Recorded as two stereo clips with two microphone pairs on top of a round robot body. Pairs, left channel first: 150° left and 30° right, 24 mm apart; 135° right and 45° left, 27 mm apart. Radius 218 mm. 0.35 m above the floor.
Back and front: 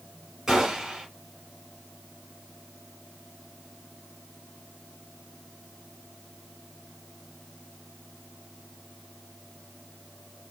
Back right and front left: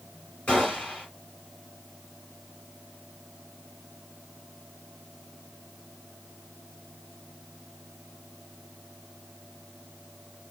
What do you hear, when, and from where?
0.5 s a gunshot: 100° right, 3 m